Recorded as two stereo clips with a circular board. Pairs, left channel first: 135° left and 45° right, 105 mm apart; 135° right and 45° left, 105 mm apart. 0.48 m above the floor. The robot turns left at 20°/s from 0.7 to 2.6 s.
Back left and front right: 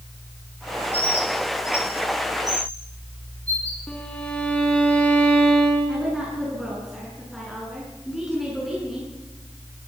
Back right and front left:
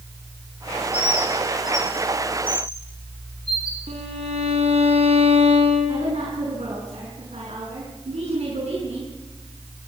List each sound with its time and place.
0.9 s a bird: 70° right, 7.5 m; by 3.8 s 100° right, 7.5 m
3.9 s a violin: 55° left, 4 m
5.9 s a woman speaking: 45° left, 6.5 m